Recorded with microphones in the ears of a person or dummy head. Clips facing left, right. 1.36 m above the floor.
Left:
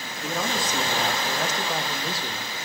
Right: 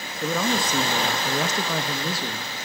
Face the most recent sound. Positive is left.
turn(degrees=-55)  # may be behind; listen again after turning